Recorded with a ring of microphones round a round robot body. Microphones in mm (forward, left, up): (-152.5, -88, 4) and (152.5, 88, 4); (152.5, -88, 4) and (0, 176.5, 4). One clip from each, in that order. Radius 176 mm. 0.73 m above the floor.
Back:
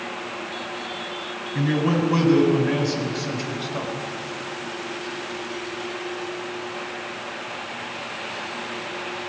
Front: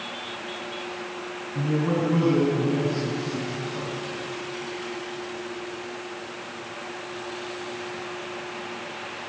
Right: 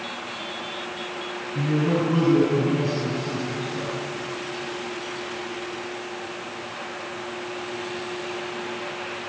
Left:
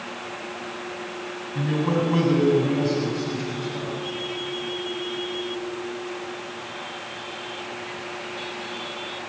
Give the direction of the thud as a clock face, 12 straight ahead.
I don't hear a thud.